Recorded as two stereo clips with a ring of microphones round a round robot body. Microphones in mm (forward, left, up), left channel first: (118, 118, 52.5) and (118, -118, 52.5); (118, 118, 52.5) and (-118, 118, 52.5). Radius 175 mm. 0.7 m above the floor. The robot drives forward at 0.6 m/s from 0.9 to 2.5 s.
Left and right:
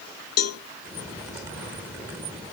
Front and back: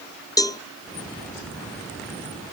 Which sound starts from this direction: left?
A cowbell, at 0.4 s.